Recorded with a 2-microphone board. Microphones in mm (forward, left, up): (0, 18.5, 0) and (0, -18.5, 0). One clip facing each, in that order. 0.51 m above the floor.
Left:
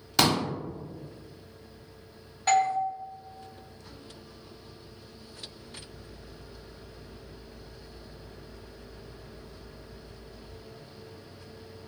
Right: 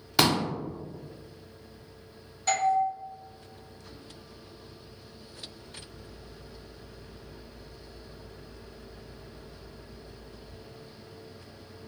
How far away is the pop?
About 0.6 m.